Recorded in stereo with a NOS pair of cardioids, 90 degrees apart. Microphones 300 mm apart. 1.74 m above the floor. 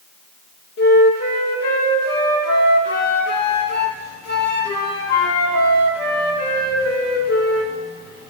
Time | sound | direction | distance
0.8 | a flute | 55° left | 2.5 m